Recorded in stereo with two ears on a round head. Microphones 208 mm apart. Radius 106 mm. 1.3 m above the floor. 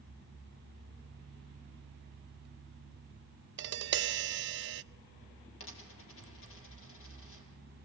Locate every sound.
3.6 s tapping: 50° right (ahead or behind), 0.6 m
5.6 s a dropped coin: 65° left (ahead or behind), 4.5 m